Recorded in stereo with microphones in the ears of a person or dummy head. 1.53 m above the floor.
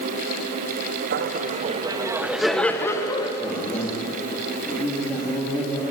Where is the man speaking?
10° left (ahead or behind), 3.5 m.